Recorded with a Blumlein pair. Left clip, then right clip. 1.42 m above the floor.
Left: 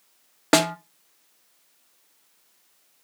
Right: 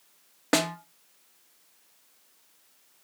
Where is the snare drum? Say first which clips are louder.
Left 6 dB; 70° left, 0.6 m.